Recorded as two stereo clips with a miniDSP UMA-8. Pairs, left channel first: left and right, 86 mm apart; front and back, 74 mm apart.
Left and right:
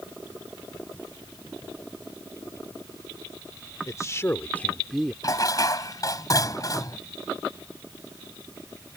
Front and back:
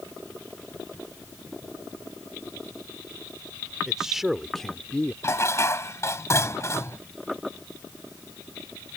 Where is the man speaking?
105° left; by 5.1 s 15° right.